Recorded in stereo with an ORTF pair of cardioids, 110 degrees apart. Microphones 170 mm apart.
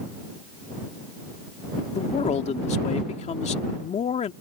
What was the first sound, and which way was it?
A man speaking, 40° left.